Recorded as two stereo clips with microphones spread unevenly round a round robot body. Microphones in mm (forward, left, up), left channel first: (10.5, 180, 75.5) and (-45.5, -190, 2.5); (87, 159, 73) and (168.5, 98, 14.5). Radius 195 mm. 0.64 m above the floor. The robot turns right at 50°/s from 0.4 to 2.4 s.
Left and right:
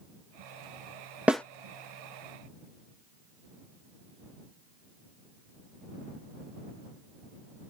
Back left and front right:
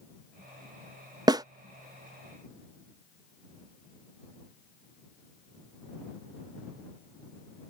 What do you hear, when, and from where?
1.3 s a snare drum: 20° right; by 1.4 s 10° right